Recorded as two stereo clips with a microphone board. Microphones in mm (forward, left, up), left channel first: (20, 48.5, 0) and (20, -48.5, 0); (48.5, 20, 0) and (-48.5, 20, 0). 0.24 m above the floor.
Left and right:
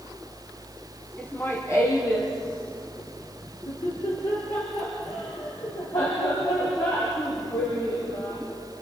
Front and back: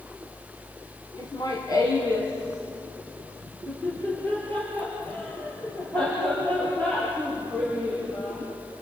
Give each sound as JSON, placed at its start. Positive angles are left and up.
{"t": 1.2, "sound": "laughter", "azimuth_deg": 20, "distance_m": 1.9}